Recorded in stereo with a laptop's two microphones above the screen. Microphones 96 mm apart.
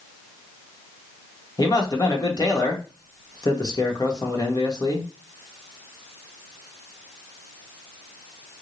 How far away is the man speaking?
About 1.1 m.